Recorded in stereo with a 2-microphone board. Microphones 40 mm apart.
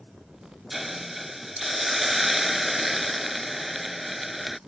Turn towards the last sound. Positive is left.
turn(degrees=0)  # may be behind; listen again after turning